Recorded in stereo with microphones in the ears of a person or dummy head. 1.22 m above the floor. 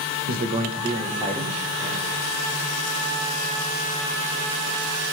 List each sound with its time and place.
0.3 s a man speaking: 50° right (ahead or behind), 1.0 m; by 2.1 s 10° left (ahead or behind), 1.6 m